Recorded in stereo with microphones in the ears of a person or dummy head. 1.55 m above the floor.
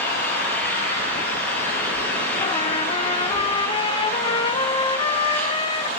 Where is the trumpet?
25° left (ahead or behind), 0.8 m.